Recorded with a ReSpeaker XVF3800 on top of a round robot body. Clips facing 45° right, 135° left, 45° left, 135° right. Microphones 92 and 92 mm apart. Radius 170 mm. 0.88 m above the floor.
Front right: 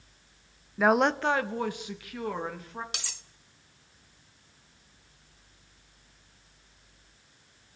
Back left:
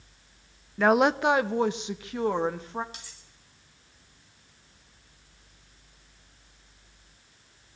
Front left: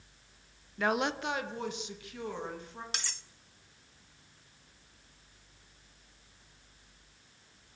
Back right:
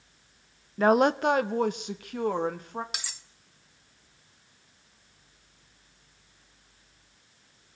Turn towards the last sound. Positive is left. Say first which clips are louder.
# front right 6 dB, even
turn(degrees=-50)